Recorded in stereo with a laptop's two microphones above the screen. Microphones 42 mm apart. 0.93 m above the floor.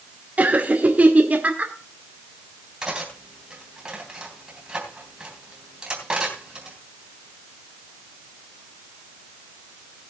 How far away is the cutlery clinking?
About 3.5 m.